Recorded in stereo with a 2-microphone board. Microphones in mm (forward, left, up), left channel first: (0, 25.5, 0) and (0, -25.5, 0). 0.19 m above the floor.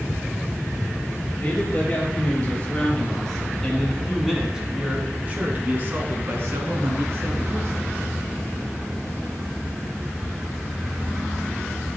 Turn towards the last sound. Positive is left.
turn(degrees=-60)  # may be behind; listen again after turning